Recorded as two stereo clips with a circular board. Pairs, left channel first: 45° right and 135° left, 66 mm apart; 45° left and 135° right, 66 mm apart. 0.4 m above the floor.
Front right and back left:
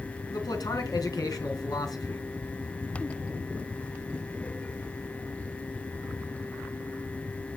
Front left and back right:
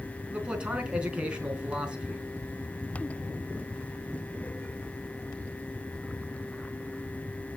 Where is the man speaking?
60° right, 4 m.